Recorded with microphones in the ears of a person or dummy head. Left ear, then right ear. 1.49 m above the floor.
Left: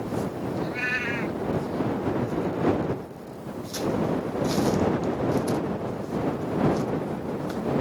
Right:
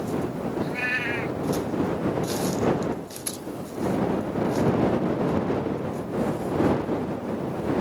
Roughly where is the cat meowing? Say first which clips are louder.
Right 1 dB; centre.